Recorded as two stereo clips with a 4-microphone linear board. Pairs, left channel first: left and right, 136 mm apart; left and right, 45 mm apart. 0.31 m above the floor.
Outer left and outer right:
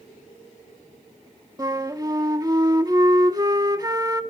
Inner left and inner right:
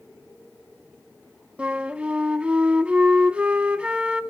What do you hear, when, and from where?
1.6 s a flute: 30° right (ahead or behind), 0.9 m